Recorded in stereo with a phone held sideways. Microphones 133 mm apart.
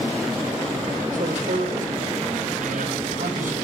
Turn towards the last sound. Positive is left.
turn(degrees=-80)